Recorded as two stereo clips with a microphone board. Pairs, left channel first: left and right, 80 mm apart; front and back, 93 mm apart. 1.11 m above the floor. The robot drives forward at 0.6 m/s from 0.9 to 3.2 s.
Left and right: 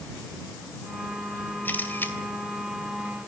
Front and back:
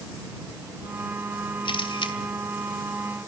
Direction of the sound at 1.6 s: 20° left.